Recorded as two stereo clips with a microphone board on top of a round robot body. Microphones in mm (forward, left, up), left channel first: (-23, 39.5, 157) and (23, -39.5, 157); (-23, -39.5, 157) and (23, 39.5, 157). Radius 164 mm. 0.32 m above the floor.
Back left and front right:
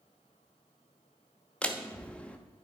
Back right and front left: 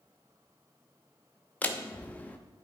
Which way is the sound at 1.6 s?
175° right.